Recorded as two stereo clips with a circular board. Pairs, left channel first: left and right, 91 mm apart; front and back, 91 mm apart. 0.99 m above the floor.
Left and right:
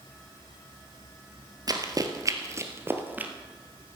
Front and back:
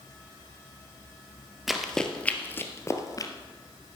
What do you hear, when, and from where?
1.7 s running footsteps: 90° right, 1.3 m; by 3.3 s 25° right, 1.4 m